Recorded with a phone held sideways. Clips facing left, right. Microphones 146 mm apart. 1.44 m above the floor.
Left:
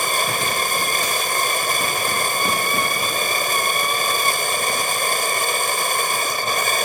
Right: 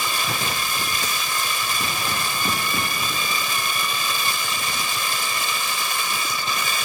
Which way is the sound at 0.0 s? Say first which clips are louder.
Left 4 dB; 50° left (ahead or behind).